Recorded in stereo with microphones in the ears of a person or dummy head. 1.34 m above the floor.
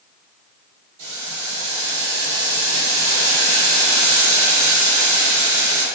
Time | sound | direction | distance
1.0 | boiling | 50° right (ahead or behind) | 1.9 m